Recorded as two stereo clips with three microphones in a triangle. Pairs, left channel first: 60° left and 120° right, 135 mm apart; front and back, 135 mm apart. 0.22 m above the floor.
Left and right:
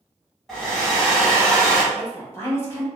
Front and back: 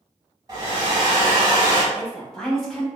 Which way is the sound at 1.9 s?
80° left.